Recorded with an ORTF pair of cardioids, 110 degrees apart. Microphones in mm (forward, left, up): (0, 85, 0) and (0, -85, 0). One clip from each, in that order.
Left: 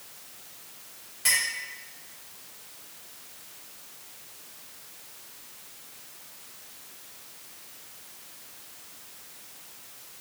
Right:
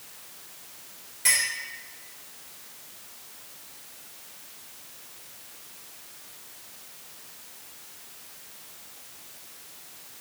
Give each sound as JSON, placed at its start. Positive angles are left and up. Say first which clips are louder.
{"t": 1.2, "sound": "a clink", "louder": "right 1 dB", "azimuth_deg": 0, "distance_m": 2.0}